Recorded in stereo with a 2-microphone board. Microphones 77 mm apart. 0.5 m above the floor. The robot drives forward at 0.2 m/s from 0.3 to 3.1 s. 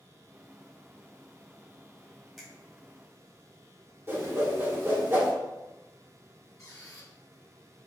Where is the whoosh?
30° right (ahead or behind), 1.3 m.